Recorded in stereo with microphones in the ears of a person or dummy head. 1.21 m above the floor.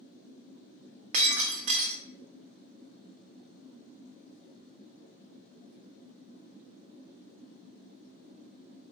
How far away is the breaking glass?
About 0.6 m.